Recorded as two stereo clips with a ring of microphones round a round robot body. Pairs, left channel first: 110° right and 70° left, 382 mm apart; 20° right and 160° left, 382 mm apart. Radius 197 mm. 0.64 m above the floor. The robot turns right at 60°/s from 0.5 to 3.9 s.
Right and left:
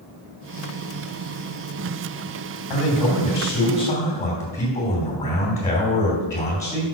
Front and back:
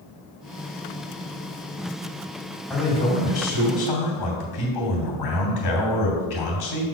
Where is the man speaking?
115° right, 2.5 m; by 6.8 s 40° right, 2.5 m.